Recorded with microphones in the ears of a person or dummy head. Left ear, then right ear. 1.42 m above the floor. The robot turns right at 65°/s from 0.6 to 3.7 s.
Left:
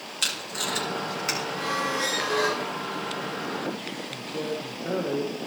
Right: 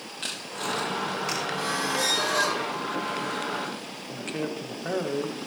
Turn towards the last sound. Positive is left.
turn(degrees=-50)  # may be behind; listen again after turning